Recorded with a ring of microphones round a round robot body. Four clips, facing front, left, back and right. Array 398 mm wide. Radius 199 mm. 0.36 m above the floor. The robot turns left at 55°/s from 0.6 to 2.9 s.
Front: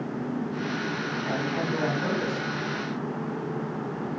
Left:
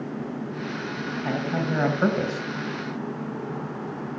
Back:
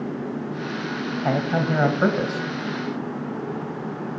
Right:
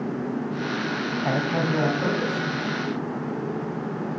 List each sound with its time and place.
1.2 s a man speaking: 160° right, 2.5 m; by 2.5 s 130° left, 2.5 m